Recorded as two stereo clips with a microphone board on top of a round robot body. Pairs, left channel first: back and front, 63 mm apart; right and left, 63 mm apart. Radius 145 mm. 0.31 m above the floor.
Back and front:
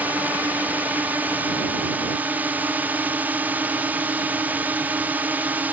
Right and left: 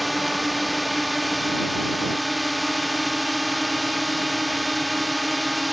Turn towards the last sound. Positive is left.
turn(degrees=0)